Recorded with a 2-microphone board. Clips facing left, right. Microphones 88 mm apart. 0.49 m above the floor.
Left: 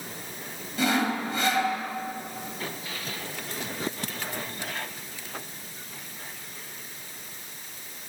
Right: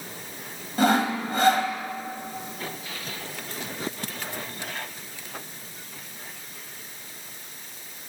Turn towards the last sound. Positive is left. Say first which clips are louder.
# right 4 dB
turn(degrees=-45)  # may be behind; listen again after turning